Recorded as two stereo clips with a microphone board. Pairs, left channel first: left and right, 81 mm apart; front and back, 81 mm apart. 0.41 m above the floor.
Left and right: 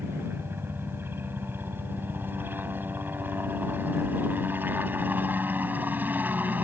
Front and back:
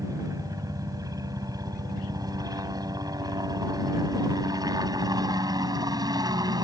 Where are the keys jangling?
No keys jangling in this recording.